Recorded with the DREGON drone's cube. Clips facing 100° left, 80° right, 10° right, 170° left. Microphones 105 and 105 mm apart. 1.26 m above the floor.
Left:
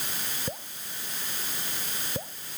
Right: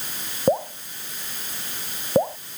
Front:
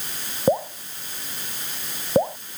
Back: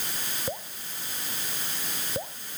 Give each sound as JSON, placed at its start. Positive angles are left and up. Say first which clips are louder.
{"t": 0.5, "sound": "dripping", "louder": "right 17 dB, front 18 dB", "azimuth_deg": -50}